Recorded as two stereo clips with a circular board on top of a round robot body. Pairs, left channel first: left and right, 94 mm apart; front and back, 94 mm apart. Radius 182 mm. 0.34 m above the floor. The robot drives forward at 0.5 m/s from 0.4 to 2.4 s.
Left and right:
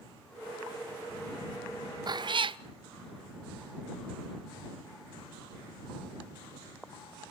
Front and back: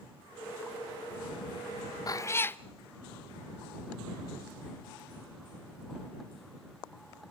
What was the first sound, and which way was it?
A cat meowing, 50° right.